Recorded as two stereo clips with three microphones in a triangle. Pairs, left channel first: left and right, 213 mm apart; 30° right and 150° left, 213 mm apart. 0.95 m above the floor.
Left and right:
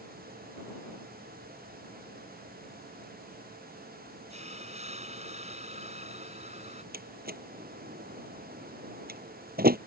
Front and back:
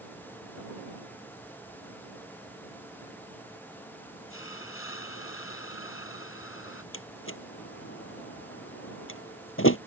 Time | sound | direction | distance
4.3 | a hiss | 30° right | ?
6.9 | a door slam | 45° right | ?